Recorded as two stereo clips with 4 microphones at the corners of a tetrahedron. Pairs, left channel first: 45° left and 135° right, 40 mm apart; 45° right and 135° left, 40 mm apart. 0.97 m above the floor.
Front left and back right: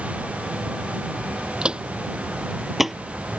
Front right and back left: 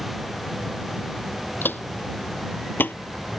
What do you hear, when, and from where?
1.6 s footsteps: 75° right; by 3.0 s 50° right